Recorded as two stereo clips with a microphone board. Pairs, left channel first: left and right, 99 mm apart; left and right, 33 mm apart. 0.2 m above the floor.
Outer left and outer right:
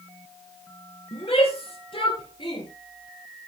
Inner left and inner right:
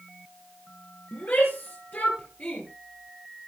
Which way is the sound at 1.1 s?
65° left (ahead or behind).